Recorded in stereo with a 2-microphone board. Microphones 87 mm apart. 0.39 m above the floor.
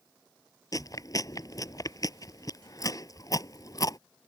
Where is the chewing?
40° left (ahead or behind).